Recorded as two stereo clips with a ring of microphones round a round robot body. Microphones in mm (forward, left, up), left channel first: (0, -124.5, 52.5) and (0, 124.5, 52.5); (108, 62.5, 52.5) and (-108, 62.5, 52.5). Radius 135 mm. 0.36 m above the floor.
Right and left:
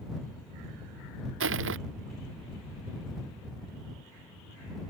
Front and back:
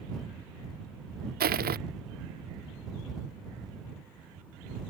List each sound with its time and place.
1.4 s crushing: 135° left